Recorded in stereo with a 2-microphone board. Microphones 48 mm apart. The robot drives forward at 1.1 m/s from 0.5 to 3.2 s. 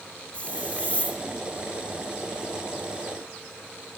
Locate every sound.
0.3 s a hiss: 25° left (ahead or behind), 3.5 m; by 1.2 s 30° left (ahead or behind), 2.5 m